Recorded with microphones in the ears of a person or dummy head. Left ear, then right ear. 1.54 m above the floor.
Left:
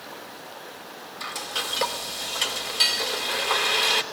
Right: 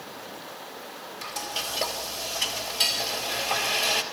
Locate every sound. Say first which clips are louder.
1.2 s frying: left 2 dB; 50° left (ahead or behind), 3 m